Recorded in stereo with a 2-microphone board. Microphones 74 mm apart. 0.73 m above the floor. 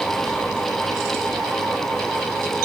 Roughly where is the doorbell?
I don't hear a doorbell.